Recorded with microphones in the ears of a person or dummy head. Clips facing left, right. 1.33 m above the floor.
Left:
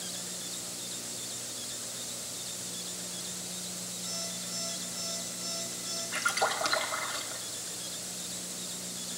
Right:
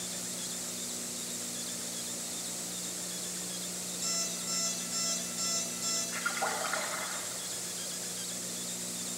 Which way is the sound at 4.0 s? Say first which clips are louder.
Even; 80° right.